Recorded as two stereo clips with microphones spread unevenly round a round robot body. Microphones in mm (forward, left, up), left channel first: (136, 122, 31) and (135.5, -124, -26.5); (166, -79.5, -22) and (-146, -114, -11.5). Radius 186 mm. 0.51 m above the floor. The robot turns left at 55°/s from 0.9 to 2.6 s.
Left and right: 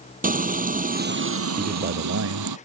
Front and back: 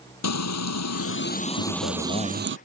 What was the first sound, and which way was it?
Frying, 30° right.